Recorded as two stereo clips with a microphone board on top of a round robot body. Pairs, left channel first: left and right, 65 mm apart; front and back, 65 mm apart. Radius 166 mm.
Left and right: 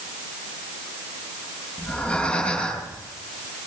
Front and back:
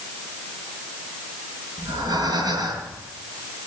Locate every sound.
1.8 s breathing: 165° left, 5.5 m